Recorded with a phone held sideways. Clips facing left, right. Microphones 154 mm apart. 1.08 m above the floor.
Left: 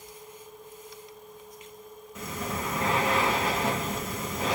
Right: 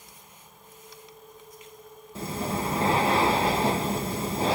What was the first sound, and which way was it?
Breathing, 30° right (ahead or behind).